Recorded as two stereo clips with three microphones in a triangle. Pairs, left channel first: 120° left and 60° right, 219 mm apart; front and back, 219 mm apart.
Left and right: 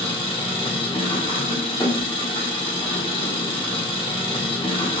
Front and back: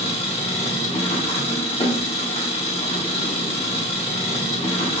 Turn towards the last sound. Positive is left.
turn(degrees=60)